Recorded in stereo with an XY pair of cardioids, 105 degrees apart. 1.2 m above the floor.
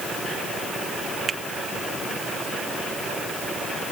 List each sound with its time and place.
1.3 s a finger snap: 40° right